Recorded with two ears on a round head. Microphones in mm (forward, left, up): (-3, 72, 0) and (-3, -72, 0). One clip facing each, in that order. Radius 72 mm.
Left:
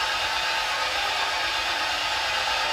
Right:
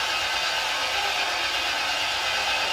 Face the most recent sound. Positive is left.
turn(degrees=-30)  # may be behind; listen again after turning